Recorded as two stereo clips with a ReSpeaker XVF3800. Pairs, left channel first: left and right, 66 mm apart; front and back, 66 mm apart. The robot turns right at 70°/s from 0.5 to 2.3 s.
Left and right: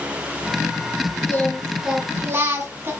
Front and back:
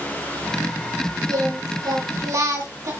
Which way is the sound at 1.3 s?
145° left.